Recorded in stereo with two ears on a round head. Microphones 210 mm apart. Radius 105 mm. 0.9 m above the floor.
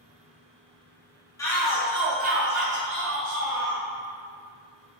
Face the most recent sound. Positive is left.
turn(degrees=-60)  # may be behind; listen again after turning